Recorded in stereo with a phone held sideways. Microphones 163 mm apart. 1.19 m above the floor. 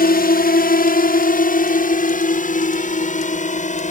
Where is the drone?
60° left (ahead or behind); by 3.9 s 45° left (ahead or behind).